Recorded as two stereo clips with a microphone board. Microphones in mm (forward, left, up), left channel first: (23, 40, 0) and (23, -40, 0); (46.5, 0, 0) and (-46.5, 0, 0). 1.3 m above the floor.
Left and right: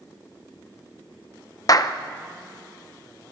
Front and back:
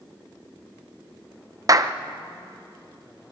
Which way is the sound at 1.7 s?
130° left.